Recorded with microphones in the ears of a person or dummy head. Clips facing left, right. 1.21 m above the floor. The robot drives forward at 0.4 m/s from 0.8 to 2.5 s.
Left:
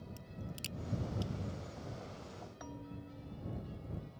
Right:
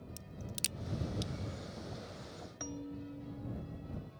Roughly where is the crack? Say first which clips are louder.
Even; right.